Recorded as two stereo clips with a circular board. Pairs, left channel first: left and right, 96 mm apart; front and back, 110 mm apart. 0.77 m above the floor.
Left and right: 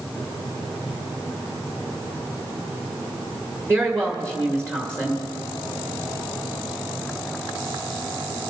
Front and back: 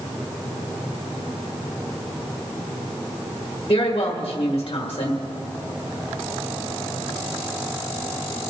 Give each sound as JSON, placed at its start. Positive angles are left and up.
{"t": 3.7, "sound": "a woman speaking", "azimuth_deg": -30, "distance_m": 1.8}